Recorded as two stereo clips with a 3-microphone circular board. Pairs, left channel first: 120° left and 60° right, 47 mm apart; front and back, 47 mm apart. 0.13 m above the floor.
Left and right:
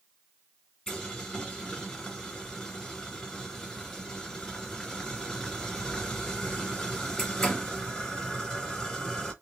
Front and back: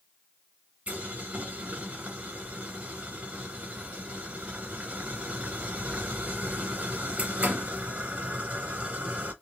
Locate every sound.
0.9 s boiling: 170° right, 1.4 m